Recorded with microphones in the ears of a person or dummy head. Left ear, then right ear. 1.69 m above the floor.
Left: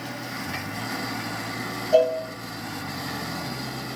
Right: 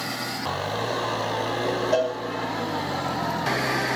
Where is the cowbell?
60° right (ahead or behind), 1.1 m.